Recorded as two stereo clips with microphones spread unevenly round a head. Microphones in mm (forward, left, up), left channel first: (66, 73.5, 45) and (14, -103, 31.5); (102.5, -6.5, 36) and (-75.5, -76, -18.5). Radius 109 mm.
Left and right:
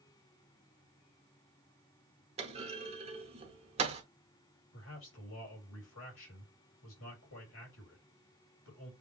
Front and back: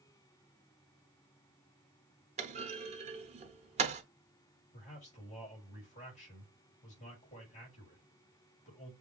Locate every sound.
2.4 s a clunk: 115° right, 0.9 m
4.7 s a man speaking: 85° left, 2.5 m